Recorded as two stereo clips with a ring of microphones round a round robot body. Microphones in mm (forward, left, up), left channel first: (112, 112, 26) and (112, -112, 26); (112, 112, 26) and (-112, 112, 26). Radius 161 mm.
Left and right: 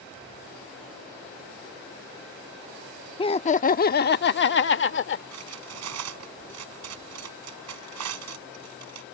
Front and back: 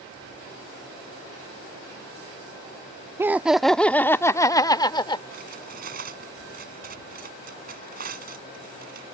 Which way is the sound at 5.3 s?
115° right.